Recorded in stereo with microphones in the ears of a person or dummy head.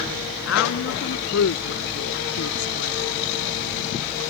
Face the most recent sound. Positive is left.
turn(degrees=65)  # may be behind; listen again after turning